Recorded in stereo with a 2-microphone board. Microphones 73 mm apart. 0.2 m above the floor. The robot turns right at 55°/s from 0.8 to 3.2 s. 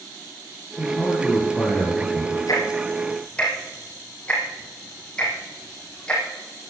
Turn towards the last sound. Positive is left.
turn(degrees=10)  # may be behind; listen again after turning